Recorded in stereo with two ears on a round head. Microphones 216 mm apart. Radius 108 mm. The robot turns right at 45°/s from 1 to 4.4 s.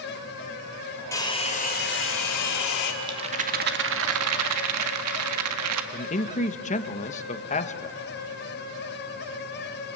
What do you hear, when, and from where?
1.1 s a hair dryer: 10° left, 3.5 m; by 2.9 s 95° left, 3.5 m
3.0 s a rattle: 165° right, 1.7 m; by 5.8 s 100° right, 1.7 m
5.9 s a man speaking: 30° left (ahead or behind), 1.4 m